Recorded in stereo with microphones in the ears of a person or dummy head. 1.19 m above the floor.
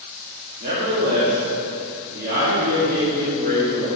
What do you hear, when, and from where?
0.6 s a man speaking: 55° right (ahead or behind), 2.5 m